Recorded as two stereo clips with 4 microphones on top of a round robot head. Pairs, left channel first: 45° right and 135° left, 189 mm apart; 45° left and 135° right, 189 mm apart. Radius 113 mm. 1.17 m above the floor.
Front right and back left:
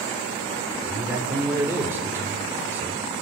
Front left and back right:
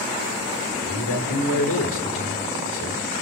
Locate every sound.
0.8 s a man speaking: 55° left, 3.5 m